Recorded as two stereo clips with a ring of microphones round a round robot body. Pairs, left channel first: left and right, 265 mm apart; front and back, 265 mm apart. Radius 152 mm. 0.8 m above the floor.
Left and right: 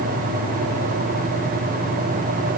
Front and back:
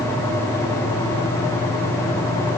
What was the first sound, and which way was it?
Only background noise.